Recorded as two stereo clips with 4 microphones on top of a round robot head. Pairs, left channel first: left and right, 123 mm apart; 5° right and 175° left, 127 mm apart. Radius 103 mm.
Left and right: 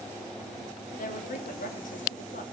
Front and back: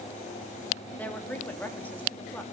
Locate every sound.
1.0 s a woman speaking: 70° left, 3 m